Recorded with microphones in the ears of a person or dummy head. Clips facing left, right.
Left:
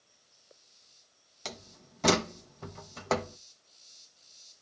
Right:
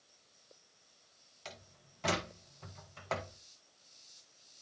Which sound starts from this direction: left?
A door slam, at 1.4 s.